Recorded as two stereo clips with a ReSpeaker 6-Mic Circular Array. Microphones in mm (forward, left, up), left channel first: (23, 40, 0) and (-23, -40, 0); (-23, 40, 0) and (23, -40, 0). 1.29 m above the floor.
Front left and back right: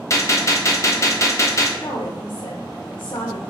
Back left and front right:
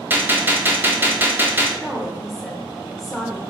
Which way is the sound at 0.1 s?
10° left.